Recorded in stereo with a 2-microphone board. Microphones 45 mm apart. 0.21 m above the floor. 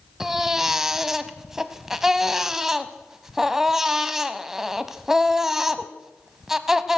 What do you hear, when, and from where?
0.2 s a baby crying: 10° right (ahead or behind), 0.9 m